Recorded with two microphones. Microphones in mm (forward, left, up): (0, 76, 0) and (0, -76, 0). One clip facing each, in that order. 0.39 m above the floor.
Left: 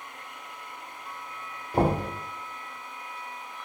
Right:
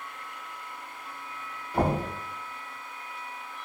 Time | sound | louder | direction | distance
1.7 | knocking | left 2 dB | 35° left (ahead or behind) | 1.0 m